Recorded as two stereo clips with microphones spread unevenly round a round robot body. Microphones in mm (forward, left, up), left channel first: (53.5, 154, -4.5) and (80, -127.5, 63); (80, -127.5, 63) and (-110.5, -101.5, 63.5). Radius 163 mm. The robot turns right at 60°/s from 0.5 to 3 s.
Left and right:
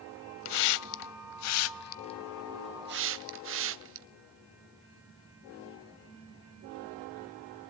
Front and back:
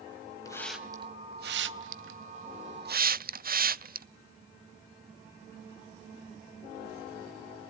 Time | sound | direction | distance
0.5 | a hiss | 70° left | 0.6 m